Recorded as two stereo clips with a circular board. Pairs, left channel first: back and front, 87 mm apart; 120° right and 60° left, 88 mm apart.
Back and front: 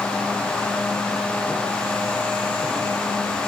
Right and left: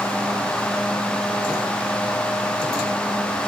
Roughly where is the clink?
No clink in this recording.